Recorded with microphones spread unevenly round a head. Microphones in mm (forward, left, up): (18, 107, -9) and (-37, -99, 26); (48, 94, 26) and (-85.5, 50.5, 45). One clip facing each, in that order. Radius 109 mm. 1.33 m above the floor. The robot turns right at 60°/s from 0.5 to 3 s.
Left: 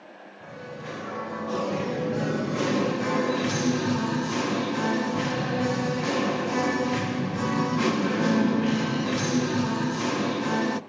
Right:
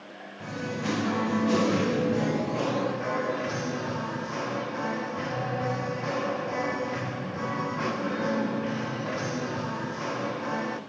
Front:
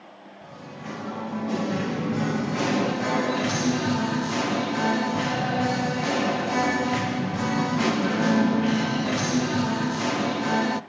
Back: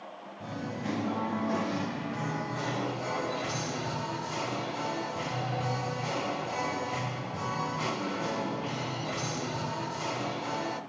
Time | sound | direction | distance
0.4 | singing | 120° right | 1.2 m